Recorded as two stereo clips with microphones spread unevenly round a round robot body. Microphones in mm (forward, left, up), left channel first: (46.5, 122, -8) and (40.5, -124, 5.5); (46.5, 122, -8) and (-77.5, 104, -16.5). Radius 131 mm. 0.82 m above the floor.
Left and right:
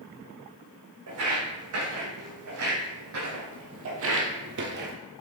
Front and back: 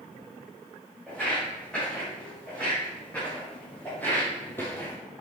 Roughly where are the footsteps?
Right.